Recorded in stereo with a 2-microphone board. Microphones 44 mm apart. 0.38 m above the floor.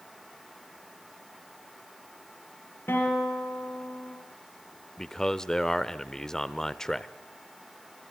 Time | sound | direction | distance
2.9 | a guitar | 55° left (ahead or behind) | 7 m
5.0 | a man speaking | 10° left (ahead or behind) | 0.8 m